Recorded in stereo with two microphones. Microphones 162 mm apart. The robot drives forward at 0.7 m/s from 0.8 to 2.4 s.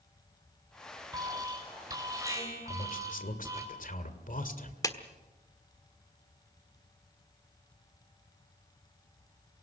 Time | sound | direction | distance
1.1 | an alarm | 25° right (ahead or behind) | 3.5 m
2.6 | a man speaking | 55° left (ahead or behind) | 2.0 m
4.8 | a clap | 20° left (ahead or behind) | 1.3 m